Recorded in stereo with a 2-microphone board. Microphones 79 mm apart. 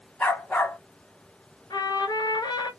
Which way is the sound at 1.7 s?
65° left (ahead or behind).